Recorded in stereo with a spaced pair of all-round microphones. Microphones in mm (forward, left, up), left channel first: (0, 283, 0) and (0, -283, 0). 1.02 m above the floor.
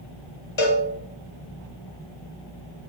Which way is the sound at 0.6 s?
55° left (ahead or behind).